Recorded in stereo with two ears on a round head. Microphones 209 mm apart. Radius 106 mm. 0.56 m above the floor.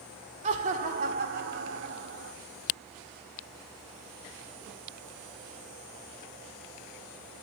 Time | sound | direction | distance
0.4 | laughter | 30° right (ahead or behind) | 1.8 m